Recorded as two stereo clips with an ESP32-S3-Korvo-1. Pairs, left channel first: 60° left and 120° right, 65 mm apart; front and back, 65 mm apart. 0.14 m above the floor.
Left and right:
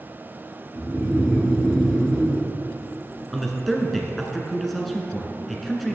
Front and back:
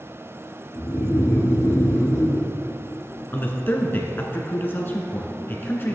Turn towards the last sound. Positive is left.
turn(degrees=-25)